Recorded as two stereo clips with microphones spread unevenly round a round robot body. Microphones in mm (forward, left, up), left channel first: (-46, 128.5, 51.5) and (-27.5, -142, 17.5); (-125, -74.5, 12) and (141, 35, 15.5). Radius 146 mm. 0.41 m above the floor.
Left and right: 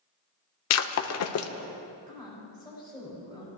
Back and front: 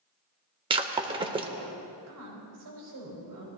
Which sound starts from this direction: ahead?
A woman speaking, at 2.1 s.